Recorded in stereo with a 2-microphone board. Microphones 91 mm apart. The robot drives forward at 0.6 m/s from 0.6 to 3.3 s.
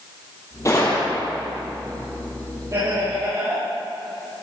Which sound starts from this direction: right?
Laughter, at 2.7 s.